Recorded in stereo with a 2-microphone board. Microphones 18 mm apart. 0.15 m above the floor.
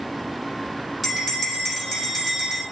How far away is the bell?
About 3.5 m.